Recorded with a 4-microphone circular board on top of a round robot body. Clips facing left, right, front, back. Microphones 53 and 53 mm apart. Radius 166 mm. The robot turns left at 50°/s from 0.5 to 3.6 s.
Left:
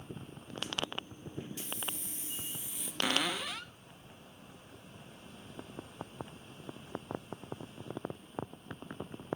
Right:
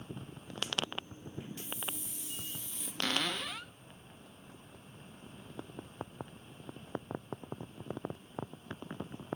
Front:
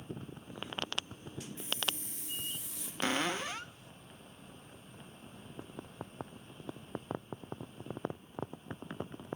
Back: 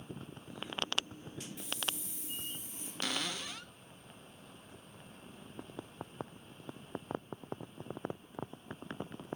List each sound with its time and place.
1.6 s a hiss: 65° left, 4.5 m; by 2.9 s straight ahead, 4.5 m
3.0 s a cupboard door: 25° left, 0.5 m; by 3.7 s 5° right, 0.5 m